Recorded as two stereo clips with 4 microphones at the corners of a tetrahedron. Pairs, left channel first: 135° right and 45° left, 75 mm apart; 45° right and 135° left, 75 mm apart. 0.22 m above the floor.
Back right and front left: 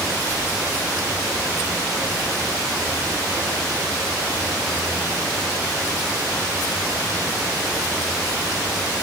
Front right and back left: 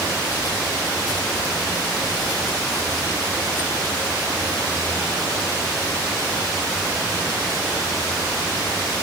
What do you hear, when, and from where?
Only background noise.